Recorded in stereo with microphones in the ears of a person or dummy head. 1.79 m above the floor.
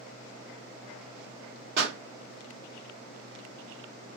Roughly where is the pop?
Right.